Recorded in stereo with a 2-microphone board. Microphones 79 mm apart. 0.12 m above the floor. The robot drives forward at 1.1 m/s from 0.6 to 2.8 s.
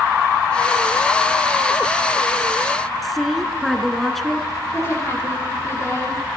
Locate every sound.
3.0 s a woman speaking: centre (ahead or behind), 1.2 m
4.7 s a woman speaking: 40° left (ahead or behind), 8 m